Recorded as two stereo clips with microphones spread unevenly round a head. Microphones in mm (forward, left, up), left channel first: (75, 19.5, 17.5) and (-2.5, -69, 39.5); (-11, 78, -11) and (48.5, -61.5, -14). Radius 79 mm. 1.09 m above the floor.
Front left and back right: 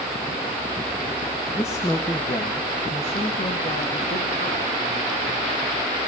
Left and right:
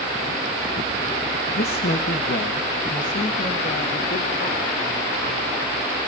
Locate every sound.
1.6 s a man speaking: 115° left, 1.0 m; by 5.6 s 60° left, 3 m